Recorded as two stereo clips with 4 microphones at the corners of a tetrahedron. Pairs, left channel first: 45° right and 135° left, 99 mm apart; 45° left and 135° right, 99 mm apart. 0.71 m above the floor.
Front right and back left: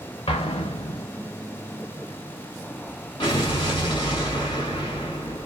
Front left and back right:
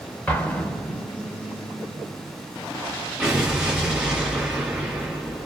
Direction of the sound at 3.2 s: 55° right.